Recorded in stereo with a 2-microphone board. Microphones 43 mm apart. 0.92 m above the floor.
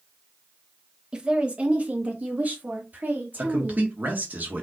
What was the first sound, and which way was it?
A woman speaking, 20° right (ahead or behind).